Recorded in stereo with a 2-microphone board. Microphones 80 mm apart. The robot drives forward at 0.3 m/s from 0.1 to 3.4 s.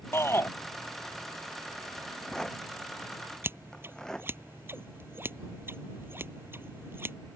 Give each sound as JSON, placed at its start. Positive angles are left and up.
{"t": 0.1, "sound": "a shout", "side_deg": 30}
{"t": 2.0, "sound": "a rattle", "side_deg": 10}
{"t": 3.4, "sound": "scissors", "side_deg": -30}